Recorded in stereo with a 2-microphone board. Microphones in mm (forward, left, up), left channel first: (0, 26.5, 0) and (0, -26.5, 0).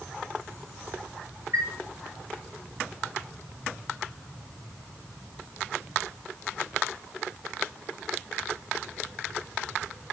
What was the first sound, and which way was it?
A chime, 60° right (ahead or behind).